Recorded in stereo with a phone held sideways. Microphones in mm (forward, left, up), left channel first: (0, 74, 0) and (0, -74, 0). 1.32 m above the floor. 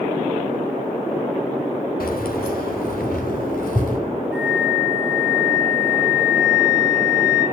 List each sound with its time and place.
2.0 s keys jangling: 80° left, 1.9 m; by 4.0 s 75° left (ahead or behind), 4.5 m
4.3 s a flute: 20° left (ahead or behind), 8.5 m